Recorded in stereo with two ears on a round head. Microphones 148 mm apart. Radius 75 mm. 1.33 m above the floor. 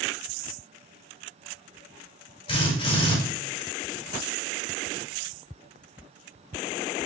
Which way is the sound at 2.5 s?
40° left (ahead or behind).